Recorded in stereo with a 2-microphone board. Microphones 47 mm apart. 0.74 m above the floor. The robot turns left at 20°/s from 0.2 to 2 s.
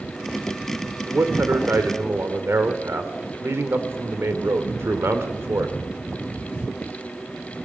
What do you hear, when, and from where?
1.1 s a man speaking: 75° right (ahead or behind), 2.5 m; by 5.7 s 65° right (ahead or behind), 2.5 m